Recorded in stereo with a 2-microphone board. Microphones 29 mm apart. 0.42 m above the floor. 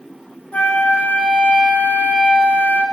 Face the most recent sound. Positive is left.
turn(degrees=75)  # may be behind; listen again after turning